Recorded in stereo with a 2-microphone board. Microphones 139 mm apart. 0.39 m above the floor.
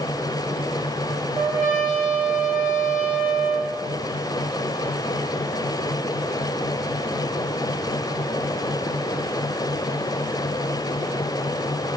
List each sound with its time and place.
1.3 s a trumpet: 70° left (ahead or behind), 7 m